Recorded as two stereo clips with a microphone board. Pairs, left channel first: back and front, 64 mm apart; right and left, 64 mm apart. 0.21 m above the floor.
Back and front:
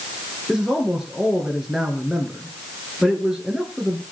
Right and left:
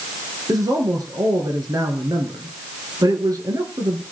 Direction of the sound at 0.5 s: 85° left.